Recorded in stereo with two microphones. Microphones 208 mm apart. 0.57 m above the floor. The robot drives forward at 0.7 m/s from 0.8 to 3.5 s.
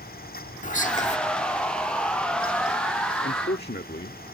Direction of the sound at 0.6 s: 40° left (ahead or behind).